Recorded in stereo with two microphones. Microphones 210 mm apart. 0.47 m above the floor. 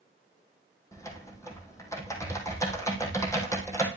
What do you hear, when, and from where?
0.9 s typing on a keyboard: 15° left (ahead or behind), 3 m